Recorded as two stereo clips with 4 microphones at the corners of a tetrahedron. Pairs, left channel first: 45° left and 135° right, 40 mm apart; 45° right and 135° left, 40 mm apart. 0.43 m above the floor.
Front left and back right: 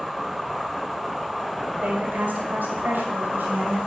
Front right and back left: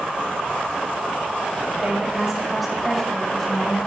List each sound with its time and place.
1.8 s a woman speaking: 175° right, 1.7 m; by 3.8 s 120° right, 3 m